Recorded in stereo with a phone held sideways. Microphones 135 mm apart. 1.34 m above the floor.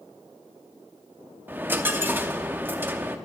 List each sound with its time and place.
1.5 s a dropped coin: 15° right (ahead or behind), 0.8 m